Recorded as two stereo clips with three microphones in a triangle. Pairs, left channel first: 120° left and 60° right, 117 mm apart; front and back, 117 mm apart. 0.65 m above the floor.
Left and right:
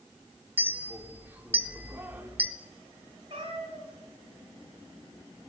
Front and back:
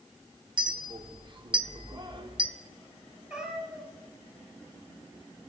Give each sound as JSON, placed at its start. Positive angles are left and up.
{"t": 0.6, "sound": "a clink", "azimuth_deg": -130, "distance_m": 0.8}
{"t": 3.3, "sound": "a cat meowing", "azimuth_deg": -95, "distance_m": 1.7}